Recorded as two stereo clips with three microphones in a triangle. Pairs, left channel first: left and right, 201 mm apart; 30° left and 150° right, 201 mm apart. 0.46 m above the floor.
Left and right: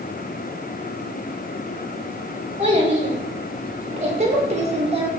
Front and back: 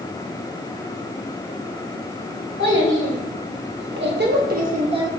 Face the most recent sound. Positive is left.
turn(degrees=-105)